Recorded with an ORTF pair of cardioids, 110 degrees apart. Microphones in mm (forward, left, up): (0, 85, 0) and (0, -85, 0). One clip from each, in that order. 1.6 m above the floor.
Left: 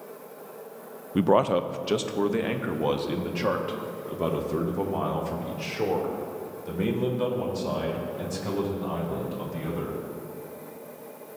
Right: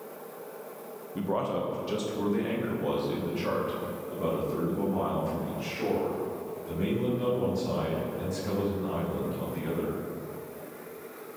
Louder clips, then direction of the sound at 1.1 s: Left 8 dB; 55° left.